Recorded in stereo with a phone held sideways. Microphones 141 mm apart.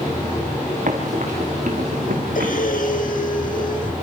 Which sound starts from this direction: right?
Running footsteps, at 0.9 s.